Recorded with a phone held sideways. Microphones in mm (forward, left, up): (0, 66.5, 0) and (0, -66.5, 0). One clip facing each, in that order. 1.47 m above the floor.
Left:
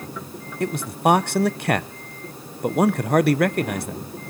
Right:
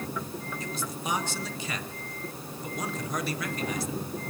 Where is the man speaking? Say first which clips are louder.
Left 18 dB; 65° left (ahead or behind), 0.7 m.